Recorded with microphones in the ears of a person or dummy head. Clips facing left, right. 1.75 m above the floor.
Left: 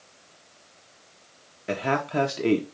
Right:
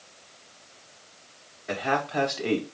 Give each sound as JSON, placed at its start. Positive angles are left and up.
{"t": 1.7, "sound": "a man speaking", "side_deg": 45, "distance_m": 1.0}